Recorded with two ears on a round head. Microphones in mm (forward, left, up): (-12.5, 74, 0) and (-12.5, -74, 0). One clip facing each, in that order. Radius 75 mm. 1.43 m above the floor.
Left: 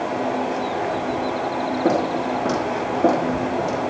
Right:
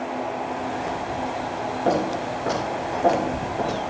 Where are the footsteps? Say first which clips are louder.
Left 2 dB; 70° left (ahead or behind), 6 m; by 3.8 s 45° left (ahead or behind), 6 m.